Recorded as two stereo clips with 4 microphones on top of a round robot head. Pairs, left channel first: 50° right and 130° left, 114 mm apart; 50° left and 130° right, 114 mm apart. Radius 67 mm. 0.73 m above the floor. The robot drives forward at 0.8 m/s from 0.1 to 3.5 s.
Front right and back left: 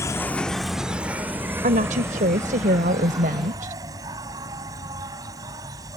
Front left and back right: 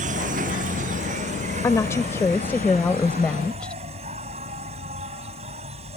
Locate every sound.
0.0 s an insect: 115° right; by 6.0 s 170° right
1.6 s a woman speaking: 115° left; by 3.8 s 130° left